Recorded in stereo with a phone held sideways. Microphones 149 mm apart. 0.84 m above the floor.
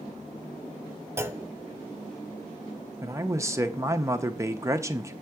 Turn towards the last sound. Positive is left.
turn(degrees=-20)  # may be behind; listen again after turning